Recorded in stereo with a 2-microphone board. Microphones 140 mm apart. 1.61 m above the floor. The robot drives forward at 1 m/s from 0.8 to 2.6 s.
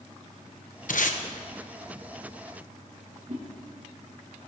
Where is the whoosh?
50° right (ahead or behind), 5 m.